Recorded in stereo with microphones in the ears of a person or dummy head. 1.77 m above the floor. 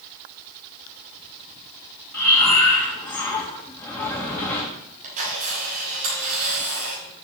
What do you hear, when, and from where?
2.1 s breathing: 15° left (ahead or behind), 1.9 m
5.0 s a camera shutter: 45° right (ahead or behind), 6 m